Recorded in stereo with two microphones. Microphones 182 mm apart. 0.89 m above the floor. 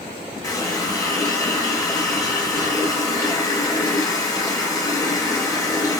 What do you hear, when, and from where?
0.4 s a running tap: 20° left (ahead or behind), 0.7 m